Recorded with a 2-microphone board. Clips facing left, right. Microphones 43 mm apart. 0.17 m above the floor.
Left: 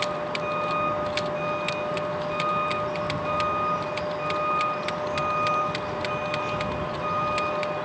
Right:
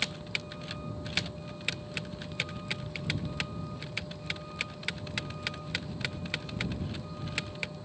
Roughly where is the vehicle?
Left.